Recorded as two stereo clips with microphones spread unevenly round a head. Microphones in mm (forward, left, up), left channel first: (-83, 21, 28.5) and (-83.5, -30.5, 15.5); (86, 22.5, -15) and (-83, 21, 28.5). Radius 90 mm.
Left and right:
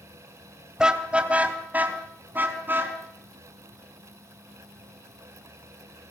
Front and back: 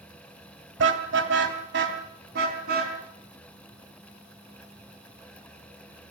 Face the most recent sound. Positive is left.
turn(degrees=-130)